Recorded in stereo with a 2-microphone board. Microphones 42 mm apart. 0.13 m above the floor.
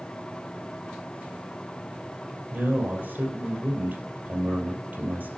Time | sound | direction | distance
2.5 | a man speaking | 40° right (ahead or behind) | 3.5 m